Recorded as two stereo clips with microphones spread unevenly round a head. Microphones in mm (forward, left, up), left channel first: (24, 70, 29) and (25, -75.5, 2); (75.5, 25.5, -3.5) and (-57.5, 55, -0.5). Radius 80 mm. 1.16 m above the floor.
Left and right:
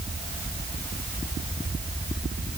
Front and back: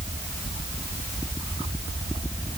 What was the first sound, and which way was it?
Only background noise.